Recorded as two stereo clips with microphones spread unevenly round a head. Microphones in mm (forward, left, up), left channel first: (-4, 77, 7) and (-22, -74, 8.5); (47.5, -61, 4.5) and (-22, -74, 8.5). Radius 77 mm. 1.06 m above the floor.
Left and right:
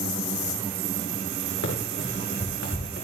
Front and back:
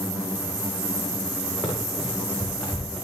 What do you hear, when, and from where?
1.6 s running footsteps: 90° left, 6 m